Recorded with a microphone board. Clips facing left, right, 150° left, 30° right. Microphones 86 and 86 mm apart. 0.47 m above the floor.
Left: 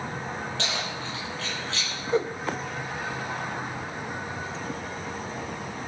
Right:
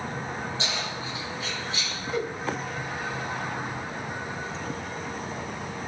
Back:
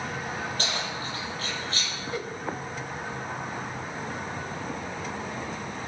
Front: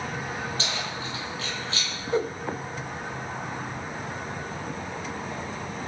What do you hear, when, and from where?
0.6 s keys jangling: 105° left, 8.5 m; by 1.9 s 95° left, 9.5 m
2.1 s a whoosh: 30° left, 0.7 m